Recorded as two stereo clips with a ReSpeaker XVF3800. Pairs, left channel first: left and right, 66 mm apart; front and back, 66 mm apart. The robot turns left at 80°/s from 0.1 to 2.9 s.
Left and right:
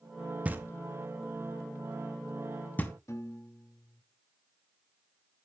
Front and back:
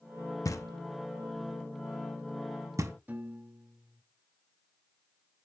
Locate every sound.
0.5 s knocking: 20° right, 0.8 m; by 2.9 s 145° left, 0.8 m
3.1 s a piano: 125° left, 0.9 m